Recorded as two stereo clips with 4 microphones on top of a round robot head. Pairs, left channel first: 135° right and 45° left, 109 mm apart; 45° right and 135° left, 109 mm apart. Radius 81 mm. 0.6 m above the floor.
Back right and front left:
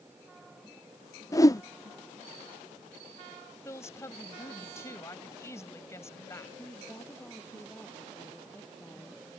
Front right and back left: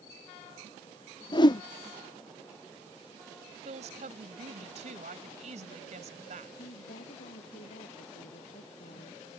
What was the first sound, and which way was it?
A whoosh, 85° right.